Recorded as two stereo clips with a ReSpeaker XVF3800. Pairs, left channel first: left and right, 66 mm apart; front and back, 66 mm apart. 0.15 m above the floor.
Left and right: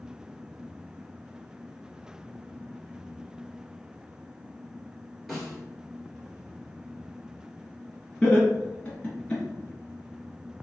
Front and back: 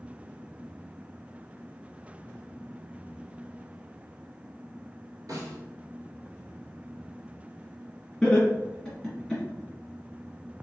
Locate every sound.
5.3 s a snare drum: straight behind, 1.5 m
8.2 s laughter: 60° left, 1.8 m